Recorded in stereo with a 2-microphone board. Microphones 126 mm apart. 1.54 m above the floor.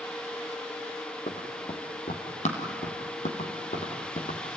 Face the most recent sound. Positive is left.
turn(degrees=65)  # may be behind; listen again after turning